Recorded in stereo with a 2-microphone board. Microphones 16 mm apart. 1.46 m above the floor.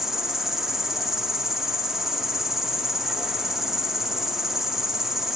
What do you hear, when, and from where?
0.0 s an insect: 25° right (ahead or behind), 1.3 m